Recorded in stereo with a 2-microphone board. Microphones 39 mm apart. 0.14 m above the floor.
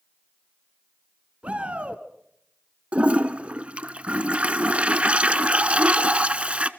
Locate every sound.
1.4 s a shout: 35° right (ahead or behind), 1.4 m
2.9 s a toilet flushing: 35° right (ahead or behind), 0.9 m